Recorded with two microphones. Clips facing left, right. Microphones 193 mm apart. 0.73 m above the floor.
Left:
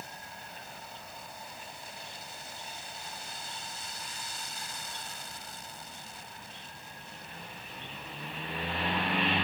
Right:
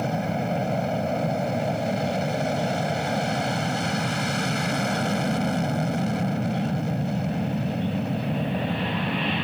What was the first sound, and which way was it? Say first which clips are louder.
An aircraft: right 23 dB; 70° right (ahead or behind).